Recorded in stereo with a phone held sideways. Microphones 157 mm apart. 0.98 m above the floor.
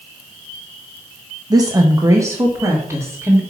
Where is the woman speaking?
25° right (ahead or behind), 0.6 m; by 3.4 s 15° right (ahead or behind), 1.7 m.